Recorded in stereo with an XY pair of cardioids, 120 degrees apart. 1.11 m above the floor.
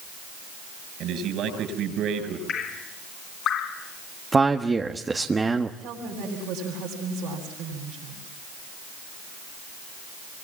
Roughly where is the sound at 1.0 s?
Ahead right.